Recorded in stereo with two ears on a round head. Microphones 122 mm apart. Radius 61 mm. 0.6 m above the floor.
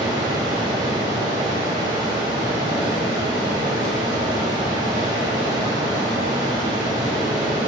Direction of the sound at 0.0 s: 35° right (ahead or behind).